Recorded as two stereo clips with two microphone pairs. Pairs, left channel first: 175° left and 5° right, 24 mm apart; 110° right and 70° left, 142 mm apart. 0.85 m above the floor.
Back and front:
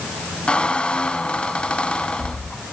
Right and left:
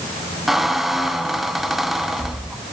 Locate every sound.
0.5 s a squeak: 155° left, 1.1 m